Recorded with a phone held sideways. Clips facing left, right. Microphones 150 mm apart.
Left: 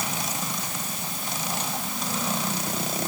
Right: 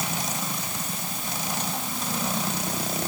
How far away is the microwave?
No microwave in this recording.